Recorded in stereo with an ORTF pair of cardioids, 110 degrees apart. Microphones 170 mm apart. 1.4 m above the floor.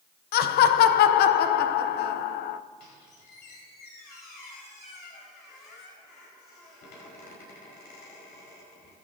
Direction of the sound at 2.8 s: 70° left.